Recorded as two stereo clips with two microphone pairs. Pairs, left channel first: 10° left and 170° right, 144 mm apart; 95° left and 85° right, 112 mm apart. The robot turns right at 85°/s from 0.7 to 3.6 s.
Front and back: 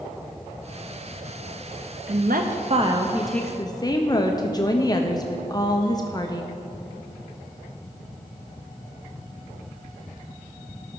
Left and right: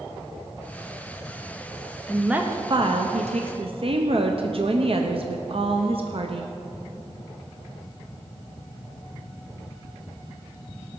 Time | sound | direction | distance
2.1 | a woman speaking | 175° left | 0.7 m